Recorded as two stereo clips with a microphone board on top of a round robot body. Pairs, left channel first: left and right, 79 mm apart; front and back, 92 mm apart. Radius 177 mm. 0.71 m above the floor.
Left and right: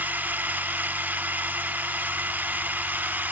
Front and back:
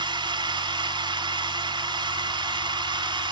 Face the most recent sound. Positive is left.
turn(degrees=-155)